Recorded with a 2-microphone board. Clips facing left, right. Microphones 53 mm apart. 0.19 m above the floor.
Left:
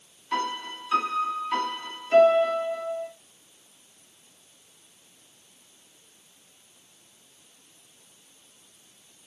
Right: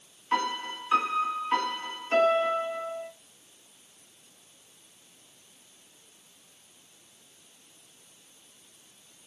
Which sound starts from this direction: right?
A piano, at 0.3 s.